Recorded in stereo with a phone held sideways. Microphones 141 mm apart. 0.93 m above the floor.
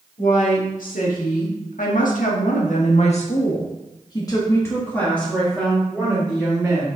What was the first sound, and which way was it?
A woman speaking, 70° left (ahead or behind).